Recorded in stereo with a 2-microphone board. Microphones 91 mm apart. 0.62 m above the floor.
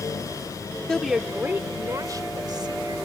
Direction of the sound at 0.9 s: 5° left (ahead or behind).